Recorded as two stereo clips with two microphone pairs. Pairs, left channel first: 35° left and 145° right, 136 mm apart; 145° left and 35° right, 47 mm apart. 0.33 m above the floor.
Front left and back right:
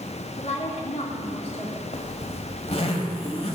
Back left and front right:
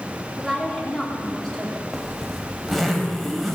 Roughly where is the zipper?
Ahead left.